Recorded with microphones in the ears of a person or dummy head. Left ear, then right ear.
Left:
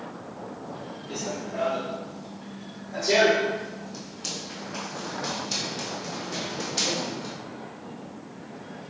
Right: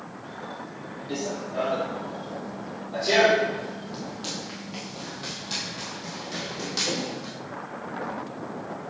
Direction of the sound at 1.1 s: 50° right (ahead or behind).